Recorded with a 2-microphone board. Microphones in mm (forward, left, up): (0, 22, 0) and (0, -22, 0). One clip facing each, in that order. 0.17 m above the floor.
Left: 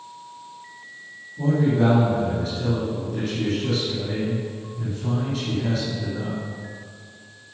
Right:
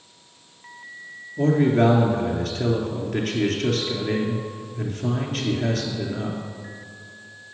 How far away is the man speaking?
About 2.5 m.